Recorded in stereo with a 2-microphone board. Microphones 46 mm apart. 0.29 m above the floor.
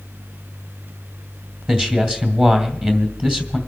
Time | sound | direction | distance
1.7 | a man speaking | 25° right (ahead or behind) | 2.5 m